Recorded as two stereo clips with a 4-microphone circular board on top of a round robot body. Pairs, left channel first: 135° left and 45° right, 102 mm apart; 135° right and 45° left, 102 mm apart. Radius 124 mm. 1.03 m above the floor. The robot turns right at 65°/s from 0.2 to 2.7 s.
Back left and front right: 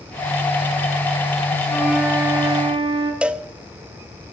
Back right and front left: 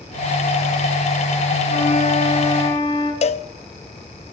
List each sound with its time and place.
1.7 s a flute: 145° right, 5 m; by 3.1 s 80° right, 5 m
3.2 s a cowbell: 125° right, 0.7 m